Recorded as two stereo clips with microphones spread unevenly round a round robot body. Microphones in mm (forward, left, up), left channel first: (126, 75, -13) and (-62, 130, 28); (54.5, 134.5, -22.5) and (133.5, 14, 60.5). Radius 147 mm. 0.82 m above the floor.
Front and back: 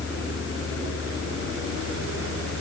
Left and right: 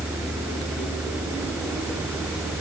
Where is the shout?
I don't hear a shout.